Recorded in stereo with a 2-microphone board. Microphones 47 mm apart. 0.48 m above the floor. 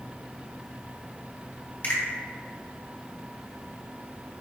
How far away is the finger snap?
About 1.6 m.